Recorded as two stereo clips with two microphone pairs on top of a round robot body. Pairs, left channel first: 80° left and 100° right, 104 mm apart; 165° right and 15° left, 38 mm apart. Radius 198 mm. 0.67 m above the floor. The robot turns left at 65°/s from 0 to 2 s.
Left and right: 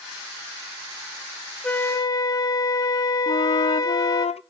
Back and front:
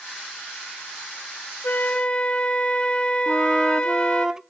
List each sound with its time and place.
1.6 s a flute: 150° left, 0.7 m; by 4.3 s 130° left, 0.7 m
3.3 s a flute: 95° left, 0.6 m